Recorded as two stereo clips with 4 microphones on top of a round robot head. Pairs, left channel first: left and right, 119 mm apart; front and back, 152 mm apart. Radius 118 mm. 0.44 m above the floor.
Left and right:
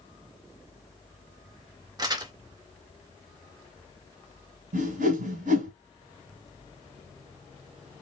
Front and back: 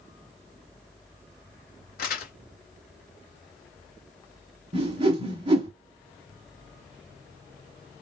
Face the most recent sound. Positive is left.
turn(degrees=-110)